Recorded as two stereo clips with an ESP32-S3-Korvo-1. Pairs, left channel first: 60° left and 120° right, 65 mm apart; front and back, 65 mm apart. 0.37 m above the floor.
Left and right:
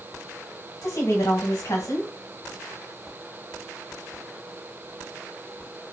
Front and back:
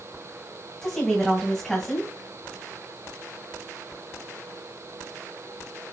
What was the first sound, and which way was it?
A woman speaking, 80° left.